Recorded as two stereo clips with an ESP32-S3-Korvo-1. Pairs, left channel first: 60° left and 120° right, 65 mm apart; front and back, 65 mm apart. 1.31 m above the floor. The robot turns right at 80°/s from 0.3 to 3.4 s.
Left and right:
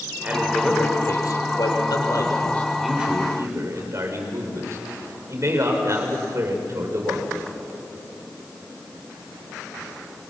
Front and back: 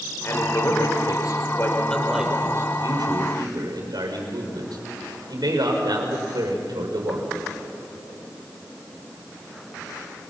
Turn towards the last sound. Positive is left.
turn(degrees=-165)